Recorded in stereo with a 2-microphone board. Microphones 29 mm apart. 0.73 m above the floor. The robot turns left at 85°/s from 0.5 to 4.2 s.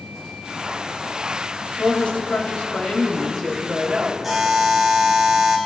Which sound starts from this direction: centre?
A buzzer, at 4.2 s.